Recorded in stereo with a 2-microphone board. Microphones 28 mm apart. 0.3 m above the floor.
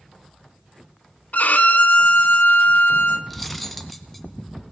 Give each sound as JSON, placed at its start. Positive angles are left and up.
{"t": 1.3, "sound": "a violin", "side_deg": 70, "distance_m": 1.3}
{"t": 3.3, "sound": "cutlery clinking", "side_deg": 0, "distance_m": 1.5}